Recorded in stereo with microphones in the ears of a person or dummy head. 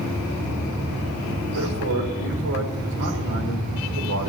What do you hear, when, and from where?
1.5 s a man speaking: 85° right, 3.5 m